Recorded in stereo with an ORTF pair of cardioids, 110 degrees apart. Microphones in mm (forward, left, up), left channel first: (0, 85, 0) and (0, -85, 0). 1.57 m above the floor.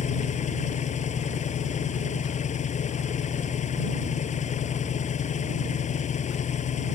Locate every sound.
0.0 s an engine running: 45° left